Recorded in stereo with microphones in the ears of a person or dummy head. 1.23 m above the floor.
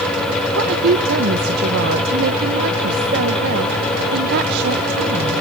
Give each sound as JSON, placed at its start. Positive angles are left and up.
{"t": 0.6, "sound": "a woman speaking", "side_deg": -60, "distance_m": 1.0}